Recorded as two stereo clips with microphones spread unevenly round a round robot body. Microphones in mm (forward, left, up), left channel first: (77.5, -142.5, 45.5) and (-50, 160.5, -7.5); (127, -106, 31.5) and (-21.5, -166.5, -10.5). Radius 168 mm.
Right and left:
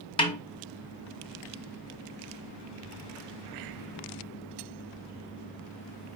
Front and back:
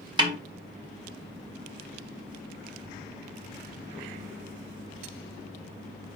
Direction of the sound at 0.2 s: 145° right.